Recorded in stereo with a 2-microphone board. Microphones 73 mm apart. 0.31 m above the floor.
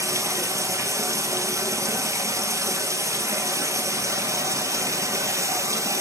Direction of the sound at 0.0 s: 45° right (ahead or behind).